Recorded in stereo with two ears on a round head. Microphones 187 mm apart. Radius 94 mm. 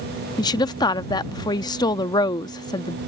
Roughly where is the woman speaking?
Centre.